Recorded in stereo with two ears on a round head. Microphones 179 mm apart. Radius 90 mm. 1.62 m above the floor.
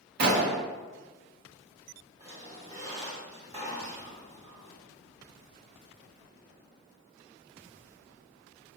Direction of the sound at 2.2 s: 30° right (ahead or behind).